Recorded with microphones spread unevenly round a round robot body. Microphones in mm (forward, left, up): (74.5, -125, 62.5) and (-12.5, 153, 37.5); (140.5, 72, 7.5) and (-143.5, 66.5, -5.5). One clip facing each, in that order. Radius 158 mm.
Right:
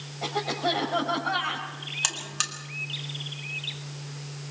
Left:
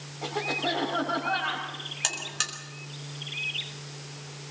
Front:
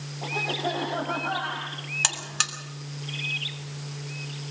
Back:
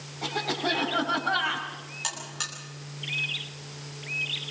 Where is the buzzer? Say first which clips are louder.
Even, front 3 dB; 5° left, 3 m.